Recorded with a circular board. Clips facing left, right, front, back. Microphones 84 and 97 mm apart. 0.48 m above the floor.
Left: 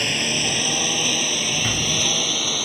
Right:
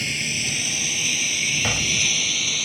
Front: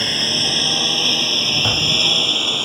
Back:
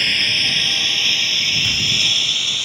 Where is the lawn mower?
60° left; by 2.6 s 45° left.